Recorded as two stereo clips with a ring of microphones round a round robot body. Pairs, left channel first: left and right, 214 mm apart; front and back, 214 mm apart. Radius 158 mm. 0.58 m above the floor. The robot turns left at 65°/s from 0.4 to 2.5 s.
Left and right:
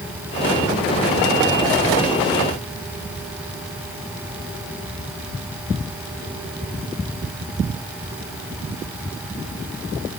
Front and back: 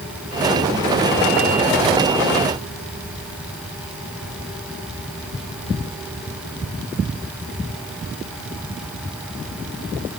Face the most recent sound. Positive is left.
No sound to turn to.